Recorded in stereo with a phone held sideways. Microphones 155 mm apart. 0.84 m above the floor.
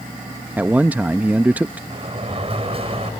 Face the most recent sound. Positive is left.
turn(degrees=-40)  # may be behind; listen again after turning